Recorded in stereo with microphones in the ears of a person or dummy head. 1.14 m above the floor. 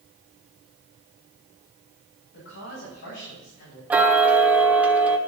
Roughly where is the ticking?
Centre.